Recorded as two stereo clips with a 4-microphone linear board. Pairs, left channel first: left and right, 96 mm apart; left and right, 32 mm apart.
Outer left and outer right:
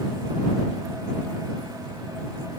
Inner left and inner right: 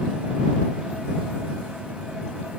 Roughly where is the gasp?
I don't hear a gasp.